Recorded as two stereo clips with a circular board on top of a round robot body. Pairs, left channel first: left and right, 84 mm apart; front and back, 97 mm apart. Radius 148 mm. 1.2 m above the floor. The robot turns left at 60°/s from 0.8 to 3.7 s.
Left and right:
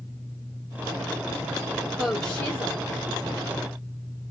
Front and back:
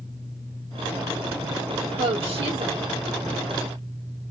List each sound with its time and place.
2.0 s a woman speaking: 175° right, 1.6 m; by 2.8 s 135° left, 1.6 m